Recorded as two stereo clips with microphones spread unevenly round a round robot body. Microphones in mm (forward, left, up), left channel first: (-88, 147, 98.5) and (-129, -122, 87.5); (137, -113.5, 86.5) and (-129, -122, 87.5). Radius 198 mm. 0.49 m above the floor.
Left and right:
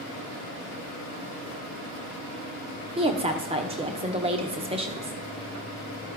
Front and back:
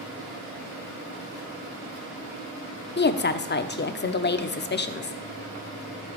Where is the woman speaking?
40° right, 0.9 m.